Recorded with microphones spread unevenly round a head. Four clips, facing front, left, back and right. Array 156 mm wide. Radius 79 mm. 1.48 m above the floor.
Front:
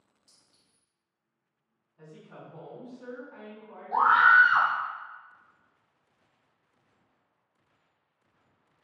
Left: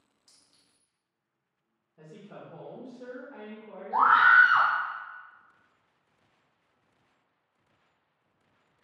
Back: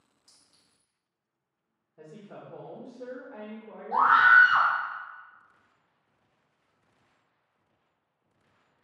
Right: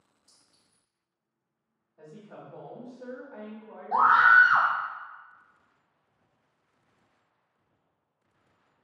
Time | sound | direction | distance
0.3 | a clink | 130° left | 1.2 m
2.0 | a woman speaking | 160° left | 1.0 m
3.9 | a scream | 115° right | 0.6 m